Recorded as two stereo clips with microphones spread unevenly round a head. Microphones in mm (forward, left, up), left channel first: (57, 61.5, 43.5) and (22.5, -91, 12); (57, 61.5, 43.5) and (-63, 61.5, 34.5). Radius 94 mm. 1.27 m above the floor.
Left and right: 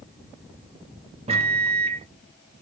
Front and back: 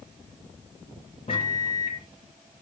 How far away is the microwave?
About 0.6 m.